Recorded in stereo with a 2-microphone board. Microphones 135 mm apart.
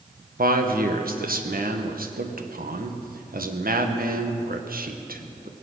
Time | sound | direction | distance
0.4 | a man speaking | 85° right | 1.3 m